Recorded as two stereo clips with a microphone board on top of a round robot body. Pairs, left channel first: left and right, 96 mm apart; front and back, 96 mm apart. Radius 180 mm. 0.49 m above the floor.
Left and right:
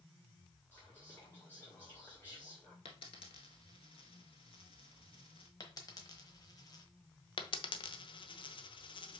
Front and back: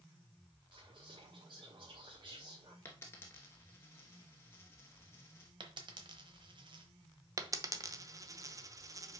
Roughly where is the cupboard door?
No cupboard door in this recording.